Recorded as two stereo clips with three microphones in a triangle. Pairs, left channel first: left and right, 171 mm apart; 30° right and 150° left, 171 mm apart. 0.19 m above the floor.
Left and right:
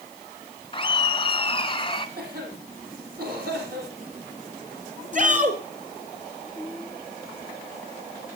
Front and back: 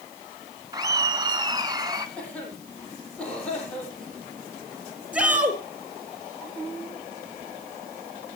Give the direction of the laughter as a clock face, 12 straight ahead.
8 o'clock.